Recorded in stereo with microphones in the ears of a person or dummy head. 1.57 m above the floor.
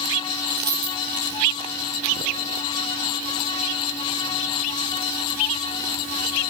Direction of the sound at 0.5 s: 20° right (ahead or behind).